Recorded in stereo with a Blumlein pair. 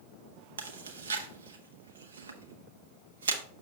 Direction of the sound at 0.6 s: 65° right.